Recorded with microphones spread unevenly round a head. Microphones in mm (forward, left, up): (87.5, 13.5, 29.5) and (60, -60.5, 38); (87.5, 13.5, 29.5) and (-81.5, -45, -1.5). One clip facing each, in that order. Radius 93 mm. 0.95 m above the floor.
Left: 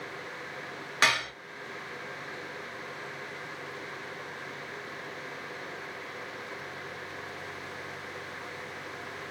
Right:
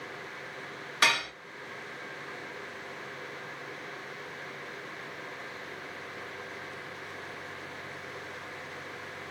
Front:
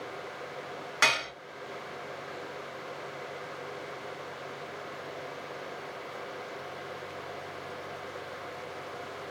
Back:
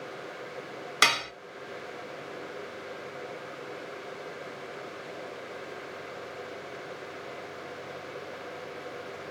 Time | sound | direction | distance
1.0 | dishes clattering | 145° left | 1.0 m